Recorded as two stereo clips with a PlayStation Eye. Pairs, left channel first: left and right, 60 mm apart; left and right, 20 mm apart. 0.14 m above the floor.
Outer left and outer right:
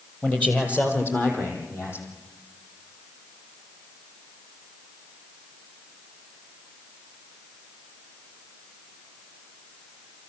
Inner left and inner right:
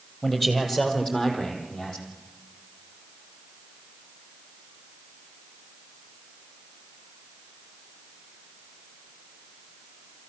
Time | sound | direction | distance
0.2 | a man speaking | 20° left (ahead or behind) | 3.5 m